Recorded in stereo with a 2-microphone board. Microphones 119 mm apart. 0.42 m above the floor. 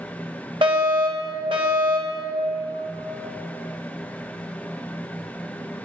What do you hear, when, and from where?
0.6 s a fire alarm: 50° right (ahead or behind), 3 m